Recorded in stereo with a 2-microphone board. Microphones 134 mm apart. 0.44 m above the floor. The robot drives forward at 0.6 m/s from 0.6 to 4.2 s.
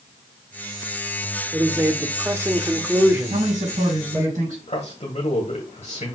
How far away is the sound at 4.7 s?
About 2.0 m.